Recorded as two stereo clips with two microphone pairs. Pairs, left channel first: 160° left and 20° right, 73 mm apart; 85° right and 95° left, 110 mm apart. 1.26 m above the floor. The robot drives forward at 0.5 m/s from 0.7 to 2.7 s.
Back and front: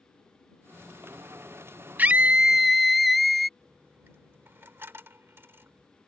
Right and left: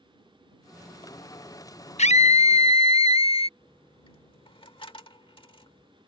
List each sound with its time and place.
2.0 s a scream: 90° right; by 3.5 s 110° right
3.6 s a dropped coin: 70° right